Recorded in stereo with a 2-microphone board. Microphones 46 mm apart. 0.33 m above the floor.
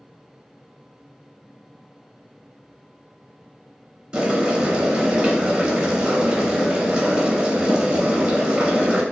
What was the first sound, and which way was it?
Boiling, 25° right (ahead or behind).